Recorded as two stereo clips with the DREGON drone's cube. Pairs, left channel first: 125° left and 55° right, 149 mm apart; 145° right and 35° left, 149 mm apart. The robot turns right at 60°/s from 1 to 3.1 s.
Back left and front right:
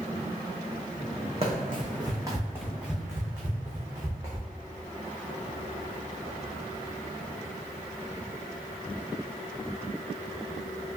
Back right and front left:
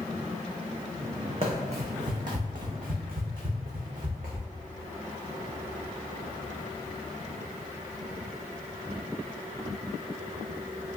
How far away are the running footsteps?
About 1.0 m.